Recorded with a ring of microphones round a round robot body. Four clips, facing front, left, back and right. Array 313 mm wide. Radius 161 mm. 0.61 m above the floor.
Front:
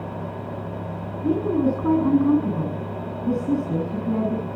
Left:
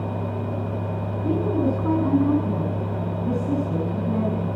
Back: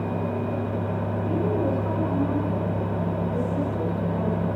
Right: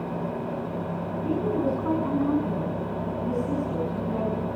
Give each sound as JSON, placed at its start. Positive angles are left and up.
{"t": 1.2, "sound": "a woman speaking", "azimuth_deg": 20, "distance_m": 8.5}